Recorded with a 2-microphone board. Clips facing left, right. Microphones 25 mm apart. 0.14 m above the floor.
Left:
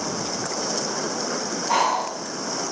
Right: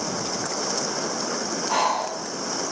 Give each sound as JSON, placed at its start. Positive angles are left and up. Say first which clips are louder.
{"t": 1.7, "sound": "breathing", "louder": "left 2 dB", "side_deg": 45, "distance_m": 6.0}